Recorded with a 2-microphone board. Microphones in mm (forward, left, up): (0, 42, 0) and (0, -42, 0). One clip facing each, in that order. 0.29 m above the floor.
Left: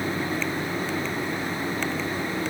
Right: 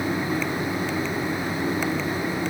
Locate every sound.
Only background noise.